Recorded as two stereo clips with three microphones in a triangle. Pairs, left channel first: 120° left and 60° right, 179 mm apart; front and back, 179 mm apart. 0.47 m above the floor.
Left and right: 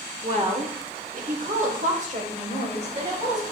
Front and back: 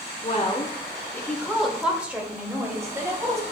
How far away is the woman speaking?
About 0.9 m.